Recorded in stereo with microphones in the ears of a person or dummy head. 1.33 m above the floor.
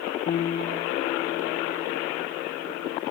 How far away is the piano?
About 0.6 m.